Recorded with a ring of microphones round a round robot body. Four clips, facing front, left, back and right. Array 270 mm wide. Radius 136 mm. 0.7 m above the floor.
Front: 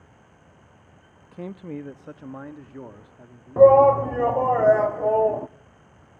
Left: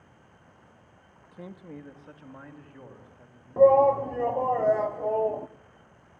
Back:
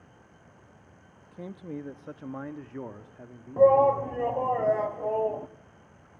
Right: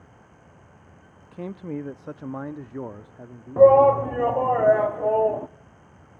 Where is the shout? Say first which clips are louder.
Right 4 dB, front 6 dB; 40° right, 0.5 m.